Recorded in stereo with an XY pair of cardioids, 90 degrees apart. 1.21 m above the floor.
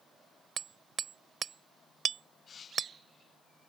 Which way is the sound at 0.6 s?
55° right.